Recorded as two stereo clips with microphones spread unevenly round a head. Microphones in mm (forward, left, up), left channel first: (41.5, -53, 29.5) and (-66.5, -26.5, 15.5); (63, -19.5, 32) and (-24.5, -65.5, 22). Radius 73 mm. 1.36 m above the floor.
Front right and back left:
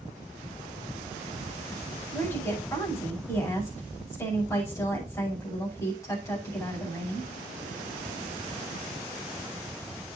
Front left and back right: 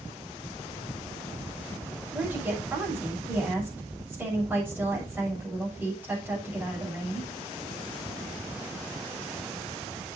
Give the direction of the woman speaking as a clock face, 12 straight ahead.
3 o'clock.